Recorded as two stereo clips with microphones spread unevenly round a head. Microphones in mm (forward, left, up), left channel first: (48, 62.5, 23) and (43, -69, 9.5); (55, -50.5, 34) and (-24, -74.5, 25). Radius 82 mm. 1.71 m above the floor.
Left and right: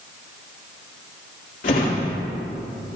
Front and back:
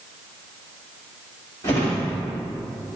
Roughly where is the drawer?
Left.